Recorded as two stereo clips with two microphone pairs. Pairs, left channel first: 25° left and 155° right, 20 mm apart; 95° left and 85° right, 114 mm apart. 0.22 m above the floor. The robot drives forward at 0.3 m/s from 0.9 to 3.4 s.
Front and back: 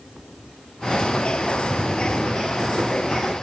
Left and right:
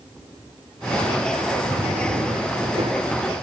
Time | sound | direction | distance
1.7 | a drawer | 135° right | 9 m